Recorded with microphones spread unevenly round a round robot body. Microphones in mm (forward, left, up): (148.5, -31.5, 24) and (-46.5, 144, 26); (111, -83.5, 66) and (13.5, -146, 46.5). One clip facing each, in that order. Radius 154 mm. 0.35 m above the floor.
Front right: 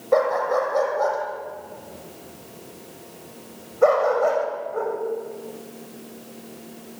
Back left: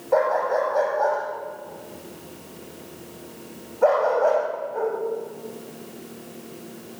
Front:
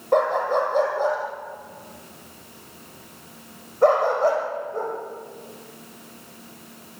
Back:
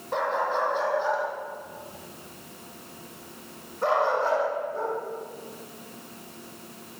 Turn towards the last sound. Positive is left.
turn(degrees=-10)